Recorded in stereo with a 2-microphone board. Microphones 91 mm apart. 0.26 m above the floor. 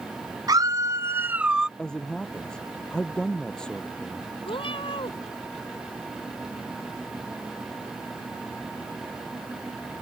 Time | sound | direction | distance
0.5 | a scream | 45° right (ahead or behind) | ?
1.8 | a man speaking | 10° left (ahead or behind) | ?
4.5 | a cat meowing | 75° left (ahead or behind) | ?